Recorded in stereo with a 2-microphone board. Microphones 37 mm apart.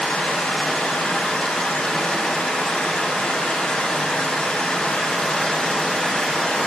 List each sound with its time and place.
0.0 s running water: 30° left (ahead or behind), 0.7 m